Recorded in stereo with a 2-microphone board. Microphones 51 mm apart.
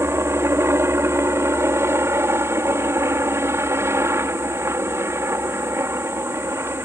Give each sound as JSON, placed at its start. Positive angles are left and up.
{"t": 0.0, "sound": "a helicopter", "side_deg": -60}